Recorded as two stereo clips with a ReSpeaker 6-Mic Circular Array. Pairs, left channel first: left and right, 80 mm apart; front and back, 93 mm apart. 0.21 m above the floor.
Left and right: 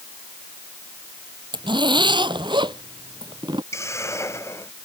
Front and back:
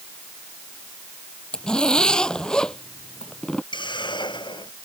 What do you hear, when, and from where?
1.5 s a zipper: 80° right
3.7 s a hiss: 35° left